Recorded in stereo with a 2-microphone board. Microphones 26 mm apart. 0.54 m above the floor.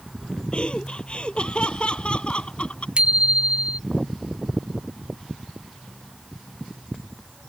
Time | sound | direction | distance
0.5 | laughter | 40° left (ahead or behind) | ?
3.0 | a bicycle bell | 40° right (ahead or behind) | ?